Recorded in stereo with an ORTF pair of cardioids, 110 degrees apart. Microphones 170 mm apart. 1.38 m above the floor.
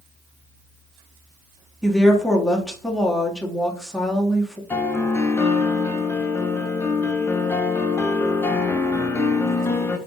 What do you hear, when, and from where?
1.8 s a woman speaking: straight ahead, 1.3 m
4.7 s a piano: 15° left, 0.7 m